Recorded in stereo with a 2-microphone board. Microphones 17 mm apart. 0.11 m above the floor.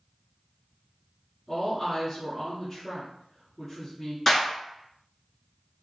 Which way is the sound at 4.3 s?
20° left (ahead or behind).